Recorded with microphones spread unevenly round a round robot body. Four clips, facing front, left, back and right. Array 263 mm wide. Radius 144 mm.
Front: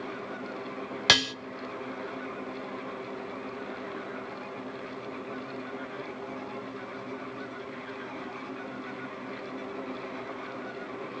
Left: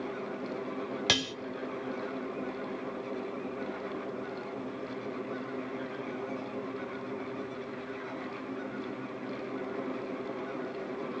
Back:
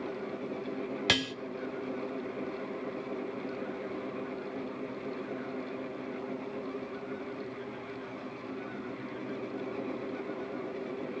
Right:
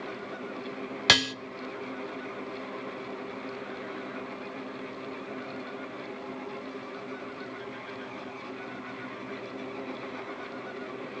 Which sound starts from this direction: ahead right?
Dishes clattering, at 1.1 s.